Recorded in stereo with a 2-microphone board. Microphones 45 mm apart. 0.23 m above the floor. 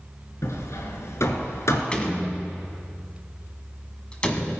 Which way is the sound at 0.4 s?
70° left (ahead or behind).